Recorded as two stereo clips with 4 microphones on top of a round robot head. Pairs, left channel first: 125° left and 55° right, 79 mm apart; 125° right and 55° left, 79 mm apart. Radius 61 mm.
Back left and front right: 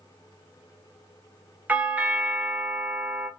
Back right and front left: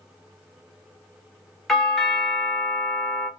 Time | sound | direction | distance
1.7 | a doorbell | 45° right | 0.8 m